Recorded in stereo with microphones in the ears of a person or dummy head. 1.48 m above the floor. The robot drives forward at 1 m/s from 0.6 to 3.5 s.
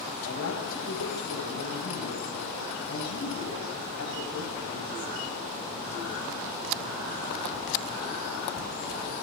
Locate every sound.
0.2 s a woman speaking: 80° left, 7 m; by 5.1 s 60° left (ahead or behind), 8 m